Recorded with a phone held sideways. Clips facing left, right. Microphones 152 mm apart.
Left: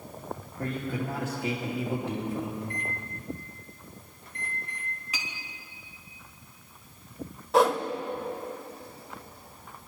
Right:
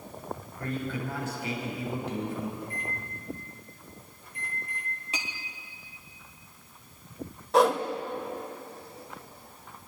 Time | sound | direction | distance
0.6 | a man speaking | 65° left (ahead or behind) | 2.5 m
2.6 | a microwave | 60° left (ahead or behind) | 2.0 m
5.1 | a clink | 25° right (ahead or behind) | 1.9 m
7.5 | a whoosh | centre (ahead or behind) | 1.0 m